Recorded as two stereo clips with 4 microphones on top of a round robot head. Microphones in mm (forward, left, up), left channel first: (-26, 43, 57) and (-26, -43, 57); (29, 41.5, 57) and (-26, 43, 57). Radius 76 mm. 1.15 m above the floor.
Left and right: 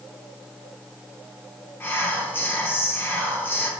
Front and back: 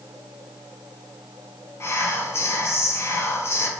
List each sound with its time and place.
1.8 s whispering: 30° left, 1.0 m